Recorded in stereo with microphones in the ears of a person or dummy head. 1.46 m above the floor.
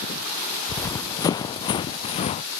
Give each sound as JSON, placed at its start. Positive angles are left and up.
{"t": 0.7, "sound": "running footsteps", "side_deg": 15}